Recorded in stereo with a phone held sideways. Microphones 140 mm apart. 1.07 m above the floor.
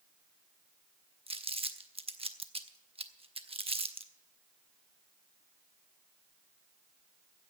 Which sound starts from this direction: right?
Crumpling, at 1.3 s.